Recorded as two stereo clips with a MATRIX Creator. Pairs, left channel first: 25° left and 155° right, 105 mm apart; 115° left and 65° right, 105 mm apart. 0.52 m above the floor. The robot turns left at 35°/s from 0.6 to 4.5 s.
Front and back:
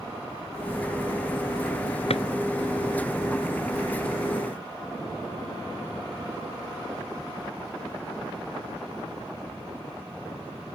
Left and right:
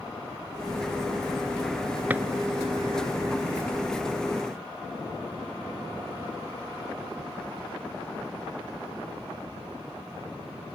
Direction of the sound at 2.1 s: 5° left.